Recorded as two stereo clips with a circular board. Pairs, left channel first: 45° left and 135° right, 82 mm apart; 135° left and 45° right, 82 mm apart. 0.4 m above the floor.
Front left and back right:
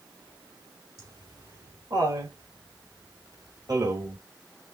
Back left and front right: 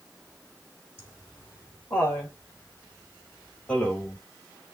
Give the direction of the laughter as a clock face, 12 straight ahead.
6 o'clock.